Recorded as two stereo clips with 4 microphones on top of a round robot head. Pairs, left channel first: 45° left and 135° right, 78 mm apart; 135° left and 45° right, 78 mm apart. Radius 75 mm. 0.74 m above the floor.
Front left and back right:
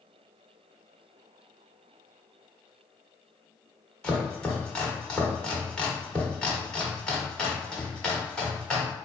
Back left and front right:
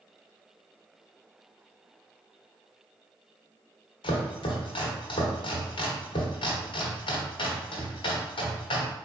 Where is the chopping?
125° left, 1.0 m.